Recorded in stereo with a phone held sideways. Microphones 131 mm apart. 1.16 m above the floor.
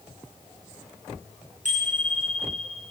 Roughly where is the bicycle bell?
Right.